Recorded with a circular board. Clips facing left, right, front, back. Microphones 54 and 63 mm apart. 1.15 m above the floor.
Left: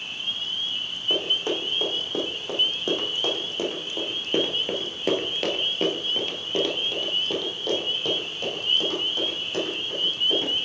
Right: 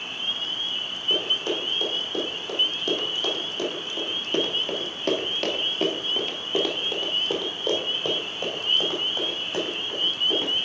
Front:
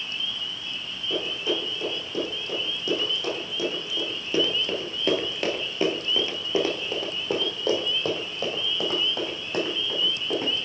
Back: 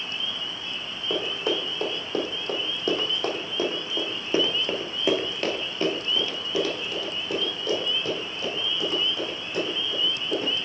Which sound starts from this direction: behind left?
Running footsteps, at 1.1 s.